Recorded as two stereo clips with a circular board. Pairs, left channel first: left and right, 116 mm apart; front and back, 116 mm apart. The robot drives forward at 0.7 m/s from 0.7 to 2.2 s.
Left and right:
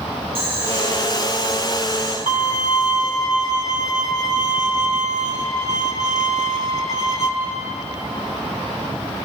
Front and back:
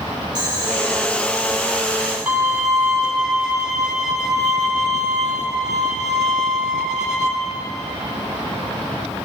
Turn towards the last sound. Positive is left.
turn(degrees=100)